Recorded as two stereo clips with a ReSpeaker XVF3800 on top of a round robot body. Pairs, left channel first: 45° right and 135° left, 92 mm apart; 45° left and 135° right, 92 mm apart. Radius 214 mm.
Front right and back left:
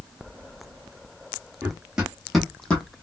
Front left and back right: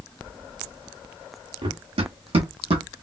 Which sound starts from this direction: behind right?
Running footsteps, at 1.6 s.